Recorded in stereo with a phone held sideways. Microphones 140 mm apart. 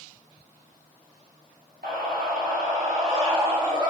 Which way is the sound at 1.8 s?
80° right.